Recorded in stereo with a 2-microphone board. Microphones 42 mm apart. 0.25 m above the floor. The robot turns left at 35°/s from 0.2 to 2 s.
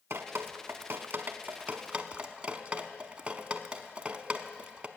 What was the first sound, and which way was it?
Dripping, 75° right (ahead or behind).